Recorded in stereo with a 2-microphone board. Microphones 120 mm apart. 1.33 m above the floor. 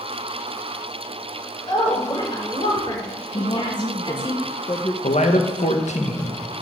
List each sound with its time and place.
1.7 s a woman speaking: 40° left (ahead or behind), 6 m
3.3 s a woman speaking: 40° left (ahead or behind), 0.9 m
5.0 s a man speaking: 75° left (ahead or behind), 1.6 m